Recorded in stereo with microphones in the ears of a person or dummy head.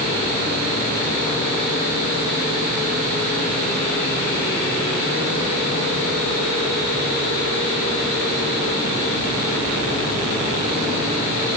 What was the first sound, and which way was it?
Only background noise.